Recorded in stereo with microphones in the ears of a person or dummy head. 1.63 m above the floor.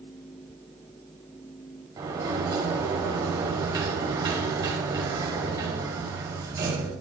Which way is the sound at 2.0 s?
20° right (ahead or behind).